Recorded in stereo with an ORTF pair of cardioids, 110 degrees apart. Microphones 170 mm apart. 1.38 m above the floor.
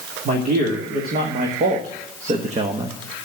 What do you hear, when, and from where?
0.2 s a man speaking: 65° right, 2.5 m; by 3.0 s 25° right, 1.0 m